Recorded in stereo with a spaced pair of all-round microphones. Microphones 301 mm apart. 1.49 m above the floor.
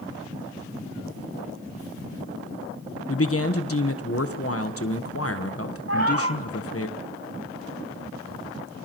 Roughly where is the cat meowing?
Right.